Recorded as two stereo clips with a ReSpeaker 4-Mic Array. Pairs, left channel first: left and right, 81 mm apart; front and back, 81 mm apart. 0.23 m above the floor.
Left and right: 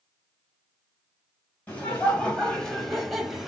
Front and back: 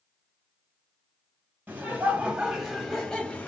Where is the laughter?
140° left, 1.2 m; by 3.5 s 15° right, 1.1 m.